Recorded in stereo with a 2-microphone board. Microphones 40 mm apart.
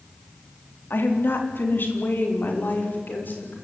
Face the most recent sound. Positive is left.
turn(degrees=50)  # may be behind; listen again after turning